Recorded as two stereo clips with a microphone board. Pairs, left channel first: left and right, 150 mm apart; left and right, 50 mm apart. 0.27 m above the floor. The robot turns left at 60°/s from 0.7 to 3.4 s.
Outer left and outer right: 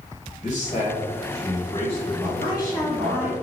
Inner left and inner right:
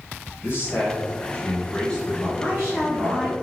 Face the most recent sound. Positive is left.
turn(degrees=-20)